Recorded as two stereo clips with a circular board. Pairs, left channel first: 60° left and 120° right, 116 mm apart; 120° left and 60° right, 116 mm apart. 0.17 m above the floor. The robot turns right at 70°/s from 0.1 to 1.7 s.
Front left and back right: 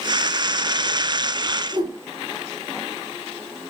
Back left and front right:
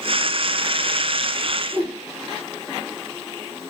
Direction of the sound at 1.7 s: 165° right.